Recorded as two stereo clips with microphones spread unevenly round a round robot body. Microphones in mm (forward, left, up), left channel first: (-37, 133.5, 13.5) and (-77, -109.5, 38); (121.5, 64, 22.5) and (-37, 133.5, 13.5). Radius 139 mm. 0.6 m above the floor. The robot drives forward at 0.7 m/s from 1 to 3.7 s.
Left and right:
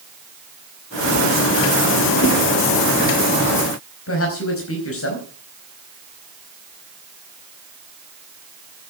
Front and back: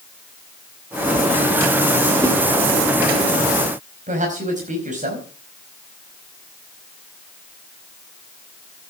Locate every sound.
2.2 s a whoosh: 90° left, 2.5 m
4.1 s a man speaking: 110° left, 5 m